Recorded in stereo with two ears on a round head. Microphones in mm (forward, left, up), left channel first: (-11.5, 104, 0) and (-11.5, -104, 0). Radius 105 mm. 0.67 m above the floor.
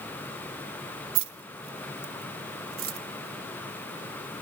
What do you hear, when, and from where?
1.1 s keys jangling: 80° right, 0.7 m